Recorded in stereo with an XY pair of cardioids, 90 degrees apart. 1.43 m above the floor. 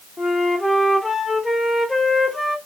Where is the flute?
20° left, 0.8 m.